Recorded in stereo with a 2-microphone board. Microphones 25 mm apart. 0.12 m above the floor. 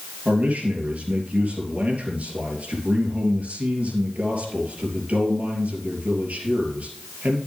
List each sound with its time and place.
0.2 s a man speaking: 60° right (ahead or behind), 3 m